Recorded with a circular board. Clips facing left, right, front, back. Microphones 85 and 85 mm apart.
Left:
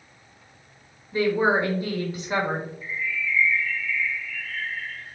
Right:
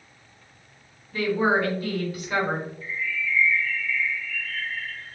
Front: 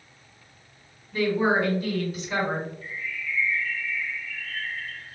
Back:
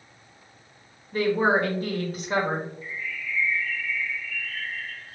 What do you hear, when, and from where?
1.1 s a woman speaking: 150° left, 1.6 m
2.8 s a bird: 10° left, 1.9 m